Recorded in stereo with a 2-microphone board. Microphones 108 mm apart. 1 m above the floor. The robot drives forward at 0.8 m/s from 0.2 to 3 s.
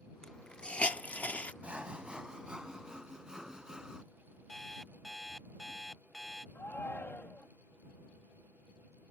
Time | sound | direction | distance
0.2 | a hiss | 10° left (ahead or behind) | ?
1.6 | sawing | 10° right (ahead or behind) | ?
4.5 | an alarm clock | centre (ahead or behind) | ?
6.5 | a shout | 20° left (ahead or behind) | ?